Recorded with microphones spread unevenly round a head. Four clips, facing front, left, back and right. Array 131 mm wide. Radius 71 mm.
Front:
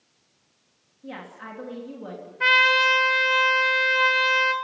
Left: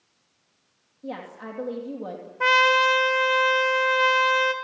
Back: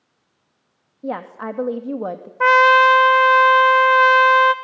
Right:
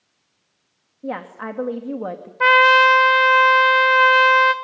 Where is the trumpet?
155° right, 1.0 m.